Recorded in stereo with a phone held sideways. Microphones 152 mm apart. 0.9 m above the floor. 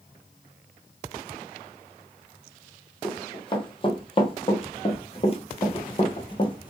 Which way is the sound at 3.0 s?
30° left (ahead or behind).